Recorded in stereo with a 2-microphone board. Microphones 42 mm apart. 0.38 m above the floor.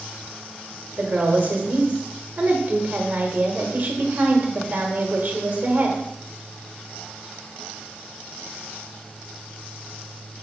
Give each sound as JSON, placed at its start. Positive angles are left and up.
{"t": 1.0, "sound": "a woman speaking", "side_deg": -45, "distance_m": 1.3}